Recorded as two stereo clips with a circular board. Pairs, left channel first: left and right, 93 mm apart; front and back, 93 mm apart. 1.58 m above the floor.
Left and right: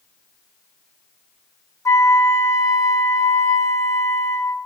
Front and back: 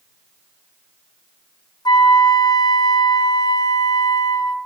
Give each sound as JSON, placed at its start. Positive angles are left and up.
{"t": 1.9, "sound": "a flute", "azimuth_deg": 35, "distance_m": 0.7}